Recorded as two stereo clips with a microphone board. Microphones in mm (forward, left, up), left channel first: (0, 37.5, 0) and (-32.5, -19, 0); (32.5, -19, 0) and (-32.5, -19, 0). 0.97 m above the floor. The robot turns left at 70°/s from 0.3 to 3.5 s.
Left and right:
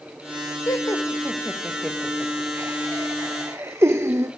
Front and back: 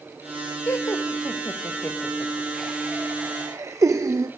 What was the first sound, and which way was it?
Laughter, 40° left.